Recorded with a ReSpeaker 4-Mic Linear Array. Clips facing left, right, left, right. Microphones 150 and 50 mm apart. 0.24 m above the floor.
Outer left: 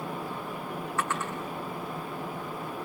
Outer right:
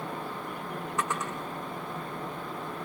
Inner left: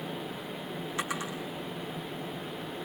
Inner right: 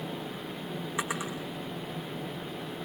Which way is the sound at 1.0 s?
15° right (ahead or behind).